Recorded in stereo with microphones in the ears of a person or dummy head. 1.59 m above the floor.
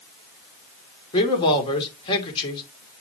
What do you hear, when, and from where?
1.1 s a man speaking: 30° left (ahead or behind), 2.5 m